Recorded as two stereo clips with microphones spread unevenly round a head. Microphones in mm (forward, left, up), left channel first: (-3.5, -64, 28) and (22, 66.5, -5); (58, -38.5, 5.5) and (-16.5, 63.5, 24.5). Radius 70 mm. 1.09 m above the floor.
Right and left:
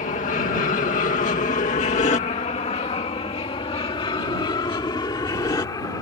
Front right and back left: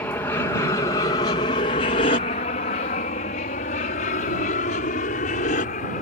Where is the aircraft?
125° right; by 6.0 s 35° right.